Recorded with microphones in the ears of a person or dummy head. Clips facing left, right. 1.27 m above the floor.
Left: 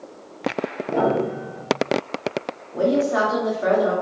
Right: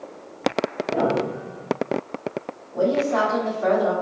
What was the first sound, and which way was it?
A piano, 65° left (ahead or behind).